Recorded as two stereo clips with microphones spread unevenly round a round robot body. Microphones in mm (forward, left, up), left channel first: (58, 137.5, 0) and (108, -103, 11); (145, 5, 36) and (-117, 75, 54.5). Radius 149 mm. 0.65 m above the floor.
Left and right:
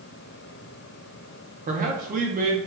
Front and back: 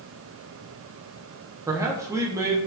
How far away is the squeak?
No squeak in this recording.